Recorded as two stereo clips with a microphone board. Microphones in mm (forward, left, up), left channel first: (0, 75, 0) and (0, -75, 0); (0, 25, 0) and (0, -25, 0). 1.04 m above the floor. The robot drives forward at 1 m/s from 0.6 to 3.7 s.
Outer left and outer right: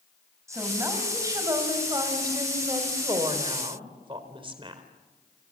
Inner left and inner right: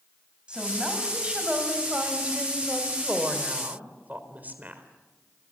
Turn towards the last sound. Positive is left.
turn(degrees=-35)  # may be behind; listen again after turning